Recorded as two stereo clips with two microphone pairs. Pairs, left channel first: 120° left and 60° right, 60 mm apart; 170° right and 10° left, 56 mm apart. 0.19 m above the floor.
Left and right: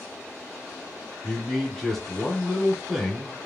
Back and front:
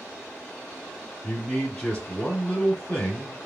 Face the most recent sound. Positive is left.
turn(degrees=-160)